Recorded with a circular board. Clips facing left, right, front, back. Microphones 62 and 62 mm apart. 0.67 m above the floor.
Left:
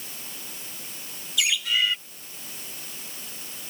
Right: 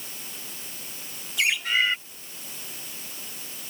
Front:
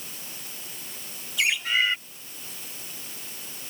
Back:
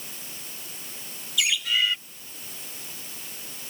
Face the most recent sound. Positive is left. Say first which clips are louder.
# right 2 dB, front 1 dB
turn(degrees=-45)